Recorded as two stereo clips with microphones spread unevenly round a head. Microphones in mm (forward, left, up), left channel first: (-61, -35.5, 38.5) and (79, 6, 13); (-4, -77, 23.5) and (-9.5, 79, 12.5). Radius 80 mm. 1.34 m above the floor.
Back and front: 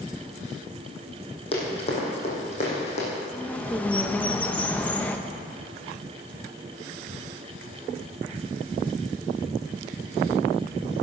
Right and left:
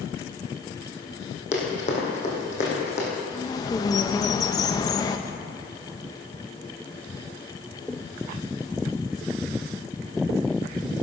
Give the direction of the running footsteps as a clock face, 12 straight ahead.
4 o'clock.